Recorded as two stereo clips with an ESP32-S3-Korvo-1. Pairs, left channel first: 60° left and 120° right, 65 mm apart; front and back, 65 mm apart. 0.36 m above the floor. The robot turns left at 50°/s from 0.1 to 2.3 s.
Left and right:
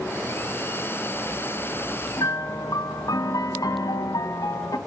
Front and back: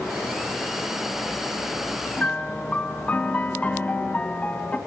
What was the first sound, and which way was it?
A piano, 75° left.